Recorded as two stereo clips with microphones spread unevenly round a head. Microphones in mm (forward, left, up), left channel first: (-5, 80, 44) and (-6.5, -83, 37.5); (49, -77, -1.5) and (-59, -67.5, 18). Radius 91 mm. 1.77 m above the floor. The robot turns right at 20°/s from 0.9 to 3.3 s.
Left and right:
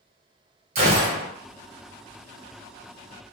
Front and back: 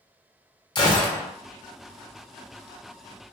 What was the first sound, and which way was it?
A gunshot, 55° right.